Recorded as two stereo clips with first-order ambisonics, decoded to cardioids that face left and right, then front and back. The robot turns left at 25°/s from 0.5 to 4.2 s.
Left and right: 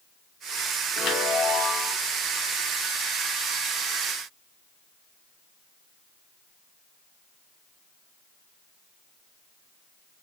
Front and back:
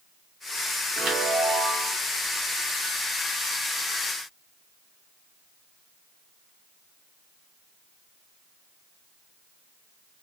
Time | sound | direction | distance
1.0 | a chime | 120° left | 0.6 m